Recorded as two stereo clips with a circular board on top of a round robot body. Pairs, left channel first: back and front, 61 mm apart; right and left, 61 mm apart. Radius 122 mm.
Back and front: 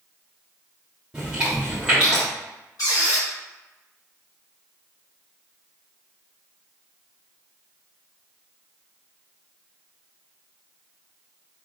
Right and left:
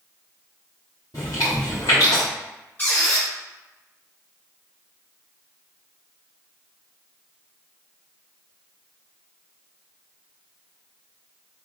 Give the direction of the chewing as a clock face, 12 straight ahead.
3 o'clock.